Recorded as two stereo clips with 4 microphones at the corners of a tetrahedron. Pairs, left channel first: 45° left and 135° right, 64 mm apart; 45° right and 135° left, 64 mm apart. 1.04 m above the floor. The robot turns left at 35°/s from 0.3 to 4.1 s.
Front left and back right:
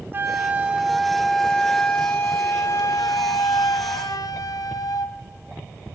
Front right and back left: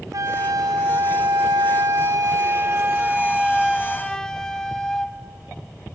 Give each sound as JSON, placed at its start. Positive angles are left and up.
{"t": 0.1, "sound": "a flute", "azimuth_deg": 170, "distance_m": 0.6}